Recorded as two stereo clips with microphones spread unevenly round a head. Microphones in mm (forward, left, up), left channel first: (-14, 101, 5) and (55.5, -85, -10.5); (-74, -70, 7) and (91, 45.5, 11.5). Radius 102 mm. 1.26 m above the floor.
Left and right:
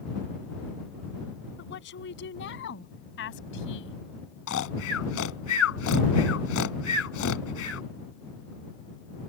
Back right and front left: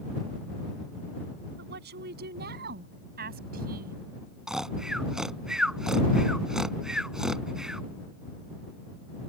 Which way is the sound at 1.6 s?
80° left.